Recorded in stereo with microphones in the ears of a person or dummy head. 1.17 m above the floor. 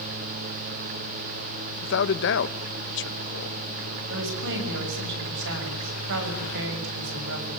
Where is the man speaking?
65° left (ahead or behind), 1.3 m.